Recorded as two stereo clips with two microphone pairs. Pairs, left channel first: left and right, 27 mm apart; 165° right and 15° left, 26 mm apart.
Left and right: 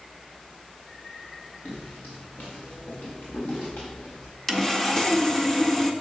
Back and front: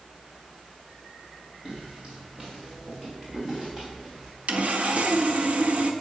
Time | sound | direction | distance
1.6 | footsteps | 75° left | 3.5 m
4.5 | sawing | 15° left | 1.3 m